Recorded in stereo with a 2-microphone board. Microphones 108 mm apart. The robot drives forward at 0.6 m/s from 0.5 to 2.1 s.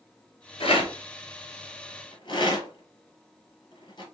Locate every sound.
0.6 s a rattle: 60° left (ahead or behind), 1.3 m; by 4.0 s 45° left (ahead or behind), 1.6 m